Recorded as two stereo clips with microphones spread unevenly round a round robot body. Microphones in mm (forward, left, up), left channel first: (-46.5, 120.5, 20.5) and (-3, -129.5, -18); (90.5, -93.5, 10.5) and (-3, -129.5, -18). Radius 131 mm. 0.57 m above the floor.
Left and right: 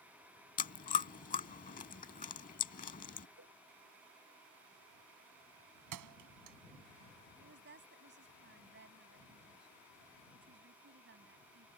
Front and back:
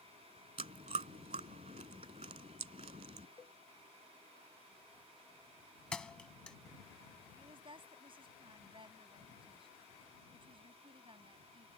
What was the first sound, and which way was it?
Chewing, 155° left.